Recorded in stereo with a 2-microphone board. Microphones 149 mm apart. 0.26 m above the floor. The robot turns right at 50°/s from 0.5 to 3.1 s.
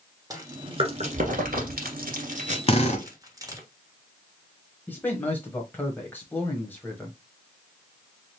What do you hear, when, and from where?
0.3 s chewing: 25° right (ahead or behind), 1.4 m
2.7 s a drill: 40° left (ahead or behind), 1.0 m; by 3.1 s 55° left (ahead or behind), 1.0 m
4.9 s a man speaking: 10° left (ahead or behind), 1.0 m